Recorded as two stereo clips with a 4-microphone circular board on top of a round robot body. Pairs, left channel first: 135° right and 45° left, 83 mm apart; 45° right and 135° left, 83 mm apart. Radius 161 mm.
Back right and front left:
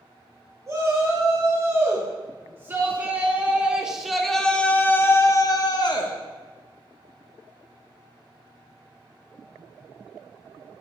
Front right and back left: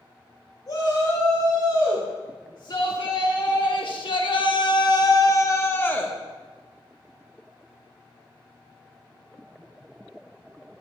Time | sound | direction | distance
0.7 | a shout | 5° right | 3 m